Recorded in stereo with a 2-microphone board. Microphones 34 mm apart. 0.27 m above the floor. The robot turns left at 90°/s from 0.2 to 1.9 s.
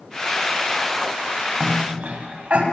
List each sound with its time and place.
1.6 s a cough: 45° right (ahead or behind), 2 m; by 2.6 s 40° right (ahead or behind), 2 m